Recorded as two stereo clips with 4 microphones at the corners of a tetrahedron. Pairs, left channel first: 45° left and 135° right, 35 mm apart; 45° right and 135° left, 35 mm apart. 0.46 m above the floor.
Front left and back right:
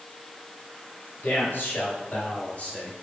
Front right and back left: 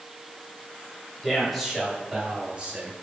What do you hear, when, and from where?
1.2 s a man speaking: 40° left, 2.5 m; by 2.9 s 90° left, 2 m